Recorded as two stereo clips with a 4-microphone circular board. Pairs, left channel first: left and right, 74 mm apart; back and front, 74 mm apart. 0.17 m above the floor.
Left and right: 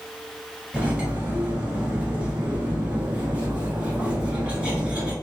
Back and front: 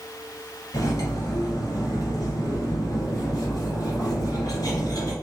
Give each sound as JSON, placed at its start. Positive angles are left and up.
{"t": 0.7, "sound": "cutlery clinking", "azimuth_deg": -160, "distance_m": 1.7}